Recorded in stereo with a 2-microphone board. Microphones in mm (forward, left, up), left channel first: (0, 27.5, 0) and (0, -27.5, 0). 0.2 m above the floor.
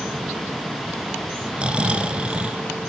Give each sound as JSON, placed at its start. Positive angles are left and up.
{"t": 1.6, "sound": "snoring", "side_deg": -20, "distance_m": 0.6}